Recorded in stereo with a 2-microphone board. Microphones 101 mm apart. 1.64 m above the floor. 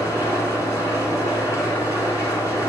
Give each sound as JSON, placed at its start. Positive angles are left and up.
{"t": 0.0, "sound": "an engine running", "side_deg": 25, "distance_m": 1.4}